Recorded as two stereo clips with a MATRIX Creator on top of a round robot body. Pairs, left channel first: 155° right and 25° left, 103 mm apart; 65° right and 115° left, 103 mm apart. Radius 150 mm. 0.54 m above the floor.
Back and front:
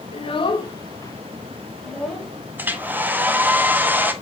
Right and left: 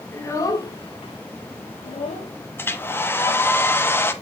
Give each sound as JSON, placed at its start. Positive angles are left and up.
{"t": 0.1, "sound": "a child speaking", "azimuth_deg": -135, "distance_m": 2.0}
{"t": 2.6, "sound": "a hair dryer", "azimuth_deg": -30, "distance_m": 1.4}